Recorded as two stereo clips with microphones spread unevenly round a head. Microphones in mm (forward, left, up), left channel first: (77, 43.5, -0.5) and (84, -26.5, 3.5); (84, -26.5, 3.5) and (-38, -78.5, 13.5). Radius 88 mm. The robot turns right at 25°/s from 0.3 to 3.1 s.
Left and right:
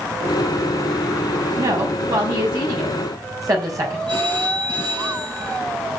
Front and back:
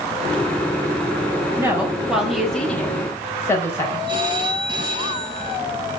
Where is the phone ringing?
100° right, 4.5 m.